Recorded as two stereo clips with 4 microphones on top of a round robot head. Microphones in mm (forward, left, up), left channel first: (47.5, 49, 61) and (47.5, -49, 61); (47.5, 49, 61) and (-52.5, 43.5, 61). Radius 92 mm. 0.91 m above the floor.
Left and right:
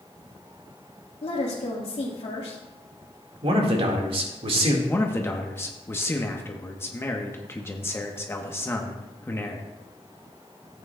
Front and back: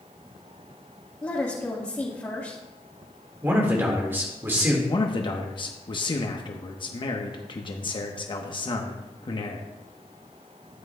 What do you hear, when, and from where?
1.2 s a woman speaking: 70° left, 1.8 m
3.4 s a man speaking: 105° right, 1.8 m
4.9 s a man speaking: 30° left, 1.0 m